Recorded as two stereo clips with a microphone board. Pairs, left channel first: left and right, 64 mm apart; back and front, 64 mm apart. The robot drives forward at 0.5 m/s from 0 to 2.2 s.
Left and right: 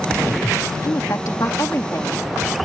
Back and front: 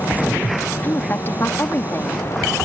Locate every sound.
0.8 s a woman speaking: 125° left; by 2.3 s 135° left